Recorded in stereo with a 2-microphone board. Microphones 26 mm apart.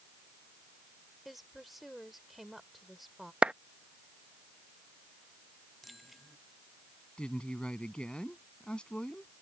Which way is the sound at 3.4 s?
40° right (ahead or behind).